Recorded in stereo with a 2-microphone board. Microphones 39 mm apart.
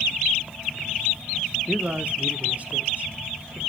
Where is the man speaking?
35° right (ahead or behind), 0.8 m; by 3.6 s 40° right (ahead or behind), 1.7 m.